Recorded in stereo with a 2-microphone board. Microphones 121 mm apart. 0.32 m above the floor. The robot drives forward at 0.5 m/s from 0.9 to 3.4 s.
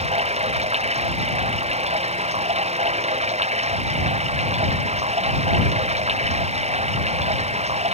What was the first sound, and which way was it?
Running water, 60° right (ahead or behind).